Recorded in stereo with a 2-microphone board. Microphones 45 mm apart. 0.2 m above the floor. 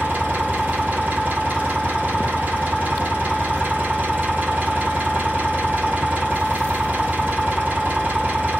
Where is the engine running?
40° right (ahead or behind), 1.7 m.